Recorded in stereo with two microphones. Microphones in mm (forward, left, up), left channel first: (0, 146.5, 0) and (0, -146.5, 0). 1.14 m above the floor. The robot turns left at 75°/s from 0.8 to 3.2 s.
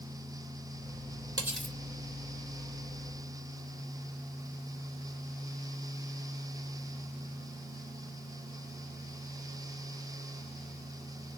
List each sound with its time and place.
1.4 s cutlery clinking: 15° right (ahead or behind), 3 m; by 1.8 s 15° left (ahead or behind), 3 m